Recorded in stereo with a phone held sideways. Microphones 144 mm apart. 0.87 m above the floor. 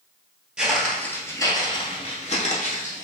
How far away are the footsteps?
About 1.1 m.